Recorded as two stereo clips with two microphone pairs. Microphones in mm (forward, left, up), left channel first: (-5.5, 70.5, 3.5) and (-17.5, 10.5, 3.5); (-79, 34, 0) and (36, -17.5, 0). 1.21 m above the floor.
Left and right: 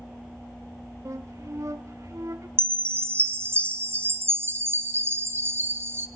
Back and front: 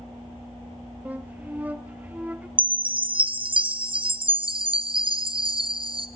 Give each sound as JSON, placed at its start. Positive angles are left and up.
{"t": 1.1, "sound": "a flute", "azimuth_deg": -100, "distance_m": 0.8}
{"t": 2.6, "sound": "a chime", "azimuth_deg": -60, "distance_m": 0.7}